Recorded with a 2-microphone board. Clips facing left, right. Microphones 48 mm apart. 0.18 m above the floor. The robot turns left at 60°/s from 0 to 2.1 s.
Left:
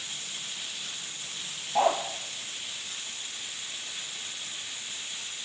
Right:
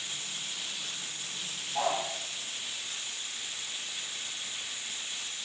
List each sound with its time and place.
1.8 s a dog barking: 40° left (ahead or behind), 1.9 m; by 2.0 s 20° left (ahead or behind), 1.9 m